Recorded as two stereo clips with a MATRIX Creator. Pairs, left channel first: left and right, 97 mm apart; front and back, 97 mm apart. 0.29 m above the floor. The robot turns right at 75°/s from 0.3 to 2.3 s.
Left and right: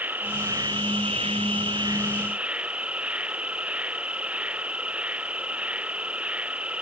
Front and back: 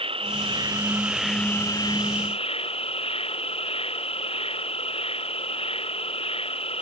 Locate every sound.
0.0 s an insect: 160° right; by 6.8 s 10° right